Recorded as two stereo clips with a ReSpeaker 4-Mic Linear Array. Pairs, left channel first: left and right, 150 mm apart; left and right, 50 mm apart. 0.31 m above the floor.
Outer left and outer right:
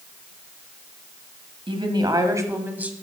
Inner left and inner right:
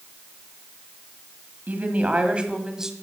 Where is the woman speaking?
35° right (ahead or behind), 1.5 m; by 2.9 s 10° right (ahead or behind), 1.6 m.